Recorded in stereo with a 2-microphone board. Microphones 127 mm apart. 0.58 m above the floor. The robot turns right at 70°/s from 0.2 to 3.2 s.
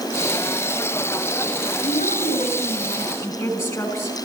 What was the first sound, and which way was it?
A woman speaking, 65° left.